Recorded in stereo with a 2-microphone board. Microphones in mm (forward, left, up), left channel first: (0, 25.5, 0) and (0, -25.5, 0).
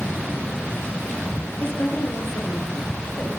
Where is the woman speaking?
65° left (ahead or behind), 3 m.